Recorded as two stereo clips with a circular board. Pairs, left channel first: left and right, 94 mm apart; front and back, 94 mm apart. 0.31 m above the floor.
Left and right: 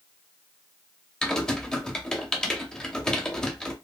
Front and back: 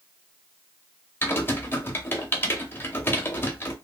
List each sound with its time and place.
1.2 s typing on a keyboard: 20° left, 0.6 m